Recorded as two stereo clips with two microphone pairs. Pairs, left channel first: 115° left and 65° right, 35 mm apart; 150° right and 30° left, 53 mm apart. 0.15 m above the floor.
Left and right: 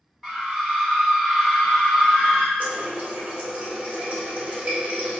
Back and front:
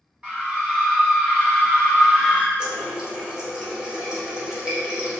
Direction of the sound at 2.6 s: 35° right.